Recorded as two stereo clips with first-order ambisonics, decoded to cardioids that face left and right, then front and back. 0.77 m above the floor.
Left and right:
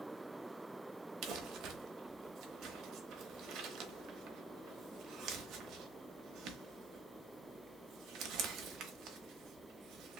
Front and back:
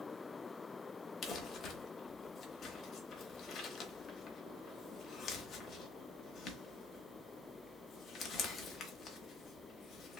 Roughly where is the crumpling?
Ahead right.